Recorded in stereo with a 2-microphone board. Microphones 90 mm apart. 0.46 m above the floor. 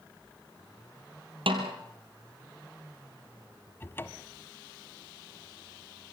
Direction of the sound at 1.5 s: 85° right.